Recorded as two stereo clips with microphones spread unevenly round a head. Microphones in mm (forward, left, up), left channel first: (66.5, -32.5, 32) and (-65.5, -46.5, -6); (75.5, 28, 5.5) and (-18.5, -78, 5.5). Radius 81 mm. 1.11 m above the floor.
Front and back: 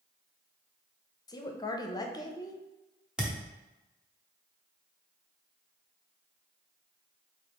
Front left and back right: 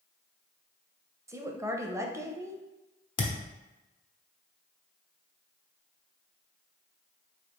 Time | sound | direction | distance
1.3 | a woman speaking | 65° right | 0.7 m
3.2 | a thud | 80° left | 0.7 m